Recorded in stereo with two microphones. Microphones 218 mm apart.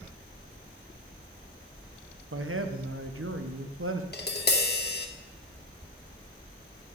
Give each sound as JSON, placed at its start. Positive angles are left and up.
{"t": 2.3, "sound": "a man speaking", "side_deg": -75, "distance_m": 0.8}
{"t": 4.1, "sound": "tapping", "side_deg": 50, "distance_m": 0.9}